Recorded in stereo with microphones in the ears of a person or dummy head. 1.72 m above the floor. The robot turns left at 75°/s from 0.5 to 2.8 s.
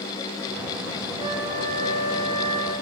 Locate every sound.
1.2 s a flute: 140° left, 5.5 m; by 2.7 s 25° left, 5.5 m